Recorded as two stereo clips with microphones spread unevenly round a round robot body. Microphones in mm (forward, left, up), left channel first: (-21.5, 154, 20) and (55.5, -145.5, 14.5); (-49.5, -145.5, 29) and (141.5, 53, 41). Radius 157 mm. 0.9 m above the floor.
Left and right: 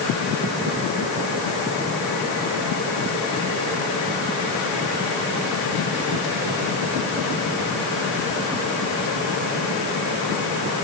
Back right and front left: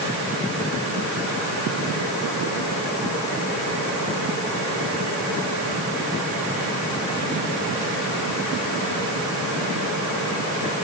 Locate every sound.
Only background noise.